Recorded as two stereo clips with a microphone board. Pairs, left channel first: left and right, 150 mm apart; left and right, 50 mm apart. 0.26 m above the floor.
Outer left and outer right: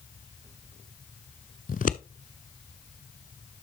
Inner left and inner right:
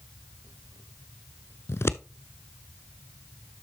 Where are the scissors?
60° left (ahead or behind), 0.5 m.